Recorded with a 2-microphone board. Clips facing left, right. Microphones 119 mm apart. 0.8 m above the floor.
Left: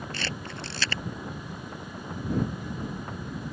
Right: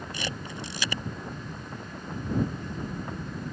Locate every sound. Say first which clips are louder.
0.1 s a camera shutter: even; 15° right (ahead or behind)